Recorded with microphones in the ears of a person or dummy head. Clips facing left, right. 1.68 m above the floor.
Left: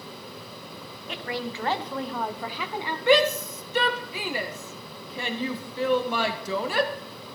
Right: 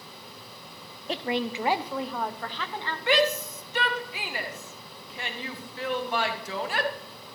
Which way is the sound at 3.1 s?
90° left.